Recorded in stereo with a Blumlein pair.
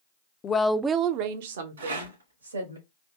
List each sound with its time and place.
0.4 s a woman speaking: 25° left, 0.5 m; by 2.8 s 75° right, 1.8 m
1.8 s a rattle: 70° right, 2 m